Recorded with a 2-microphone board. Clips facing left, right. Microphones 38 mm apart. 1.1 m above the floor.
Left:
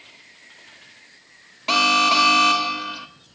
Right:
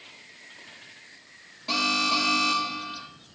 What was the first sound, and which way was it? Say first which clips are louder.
An alarm: left 8 dB; 75° left (ahead or behind).